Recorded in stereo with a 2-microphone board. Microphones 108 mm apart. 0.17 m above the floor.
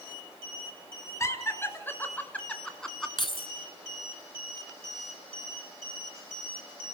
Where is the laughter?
25° left (ahead or behind), 2.5 m; by 3.1 s centre (ahead or behind), 1.7 m.